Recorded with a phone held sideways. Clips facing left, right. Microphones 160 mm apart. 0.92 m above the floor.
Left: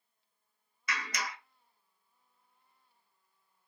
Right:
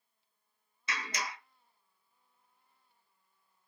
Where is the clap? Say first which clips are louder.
Even; 25° right (ahead or behind), 0.8 m.